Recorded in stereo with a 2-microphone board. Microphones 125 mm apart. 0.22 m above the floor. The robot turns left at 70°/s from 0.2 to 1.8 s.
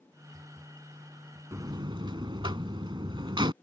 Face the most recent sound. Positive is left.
turn(degrees=-40)  # may be behind; listen again after turning